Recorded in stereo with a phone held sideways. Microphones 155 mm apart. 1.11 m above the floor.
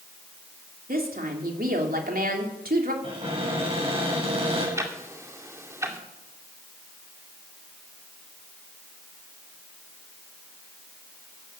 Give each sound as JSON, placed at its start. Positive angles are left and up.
{"t": 0.9, "sound": "a woman speaking", "side_deg": -70, "distance_m": 3.5}
{"t": 3.0, "sound": "a cupboard door", "side_deg": -40, "distance_m": 7.5}
{"t": 4.8, "sound": "ticking", "side_deg": -20, "distance_m": 2.0}